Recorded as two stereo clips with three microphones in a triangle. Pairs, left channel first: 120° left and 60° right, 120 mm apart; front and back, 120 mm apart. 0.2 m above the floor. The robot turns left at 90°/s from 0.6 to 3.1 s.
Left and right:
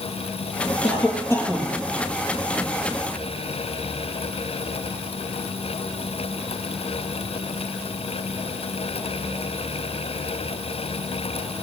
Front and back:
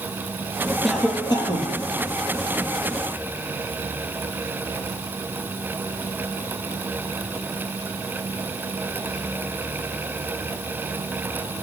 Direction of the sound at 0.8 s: 95° left.